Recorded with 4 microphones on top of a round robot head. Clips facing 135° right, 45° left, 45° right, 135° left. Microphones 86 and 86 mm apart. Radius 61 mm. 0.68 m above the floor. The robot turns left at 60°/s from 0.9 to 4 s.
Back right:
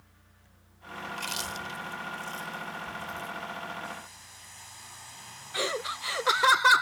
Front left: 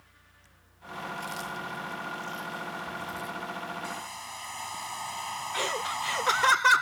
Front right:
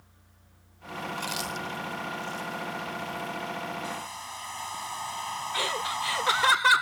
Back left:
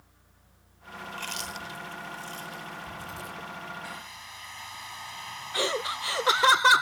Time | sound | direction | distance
1.1 | chewing | 110° right | ?
3.8 | a hair dryer | 20° left | ?
5.5 | laughter | 160° left | ?